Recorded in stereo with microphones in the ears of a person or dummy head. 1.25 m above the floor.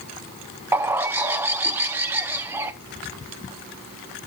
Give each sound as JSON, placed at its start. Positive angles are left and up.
{"t": 0.7, "sound": "a bird", "side_deg": -15, "distance_m": 0.6}